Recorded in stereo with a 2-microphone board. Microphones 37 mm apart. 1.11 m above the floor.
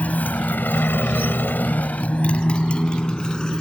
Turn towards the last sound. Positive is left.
turn(degrees=20)  # may be behind; listen again after turning